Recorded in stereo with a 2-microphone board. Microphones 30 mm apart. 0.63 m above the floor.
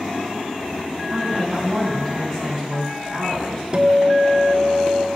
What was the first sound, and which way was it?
A woman speaking, 10° left (ahead or behind).